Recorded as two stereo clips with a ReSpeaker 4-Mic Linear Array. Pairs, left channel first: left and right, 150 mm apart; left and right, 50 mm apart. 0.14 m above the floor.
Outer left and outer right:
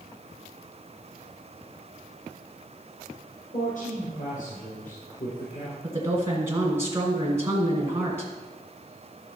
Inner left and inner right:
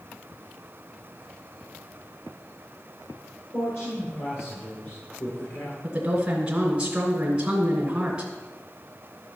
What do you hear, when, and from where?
3.5 s a woman speaking: 60° left (ahead or behind), 4 m
5.8 s a woman speaking: 20° right (ahead or behind), 1.7 m